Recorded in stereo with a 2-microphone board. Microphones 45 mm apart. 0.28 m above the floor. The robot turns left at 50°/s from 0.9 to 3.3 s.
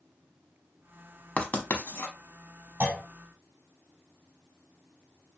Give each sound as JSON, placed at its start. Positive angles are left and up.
{"t": 1.4, "sound": "writing", "side_deg": 30, "distance_m": 0.6}
{"t": 2.8, "sound": "a clunk", "side_deg": -45, "distance_m": 1.4}